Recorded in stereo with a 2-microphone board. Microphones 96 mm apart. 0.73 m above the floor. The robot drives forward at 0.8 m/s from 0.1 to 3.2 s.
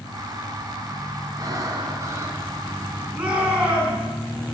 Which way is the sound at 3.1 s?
10° right (ahead or behind).